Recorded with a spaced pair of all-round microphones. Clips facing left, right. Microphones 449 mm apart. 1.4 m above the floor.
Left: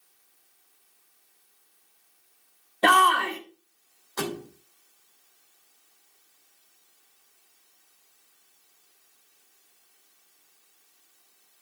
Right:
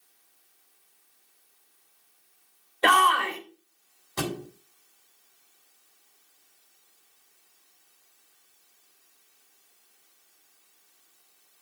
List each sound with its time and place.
2.8 s a shout: 55° left (ahead or behind), 1.8 m
4.2 s a thud: 50° right (ahead or behind), 1.7 m